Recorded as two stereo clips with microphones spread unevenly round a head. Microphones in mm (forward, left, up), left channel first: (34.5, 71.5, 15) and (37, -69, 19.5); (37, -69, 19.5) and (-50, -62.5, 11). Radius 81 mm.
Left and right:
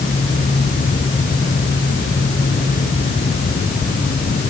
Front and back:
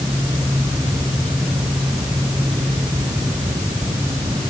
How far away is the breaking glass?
I don't hear breaking glass.